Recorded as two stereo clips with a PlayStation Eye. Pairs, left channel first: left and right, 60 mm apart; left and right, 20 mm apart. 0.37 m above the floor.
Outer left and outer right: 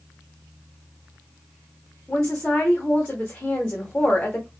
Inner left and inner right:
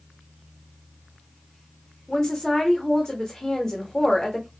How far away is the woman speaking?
About 0.8 m.